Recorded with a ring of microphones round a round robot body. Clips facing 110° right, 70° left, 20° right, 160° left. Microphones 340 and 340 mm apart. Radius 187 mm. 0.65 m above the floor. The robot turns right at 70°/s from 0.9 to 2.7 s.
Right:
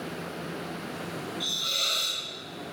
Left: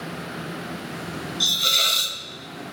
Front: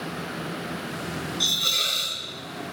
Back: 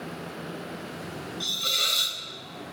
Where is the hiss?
45° left, 1.1 m; by 2.2 s 100° left, 1.1 m.